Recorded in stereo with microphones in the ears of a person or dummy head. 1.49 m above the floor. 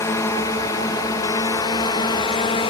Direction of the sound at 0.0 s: 15° left (ahead or behind).